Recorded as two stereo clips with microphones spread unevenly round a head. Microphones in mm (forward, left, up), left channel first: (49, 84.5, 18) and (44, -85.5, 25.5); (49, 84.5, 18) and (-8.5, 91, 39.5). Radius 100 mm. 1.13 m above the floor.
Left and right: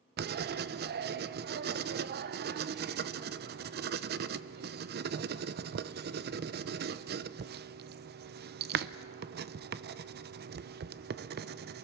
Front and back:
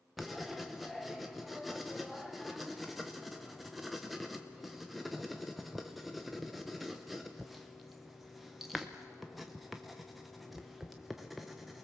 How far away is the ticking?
I don't hear ticking.